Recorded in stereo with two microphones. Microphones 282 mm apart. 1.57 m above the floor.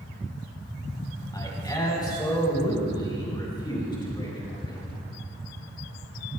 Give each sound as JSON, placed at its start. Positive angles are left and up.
{"t": 1.3, "sound": "a man speaking", "side_deg": 15, "distance_m": 4.0}